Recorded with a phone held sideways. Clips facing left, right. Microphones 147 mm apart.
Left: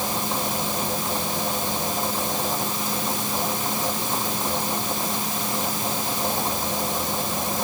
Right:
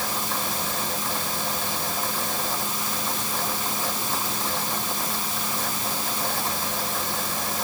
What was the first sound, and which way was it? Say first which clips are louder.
A fan: left 3 dB; 15° left (ahead or behind).